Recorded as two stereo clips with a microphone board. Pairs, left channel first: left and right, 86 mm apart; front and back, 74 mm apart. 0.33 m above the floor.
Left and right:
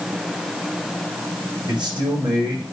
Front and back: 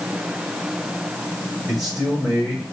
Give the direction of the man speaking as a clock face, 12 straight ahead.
3 o'clock.